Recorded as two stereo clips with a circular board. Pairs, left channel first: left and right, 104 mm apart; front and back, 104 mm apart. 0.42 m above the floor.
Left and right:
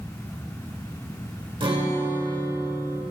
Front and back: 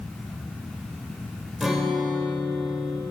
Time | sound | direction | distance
1.6 | a guitar | 95° right | 1.2 m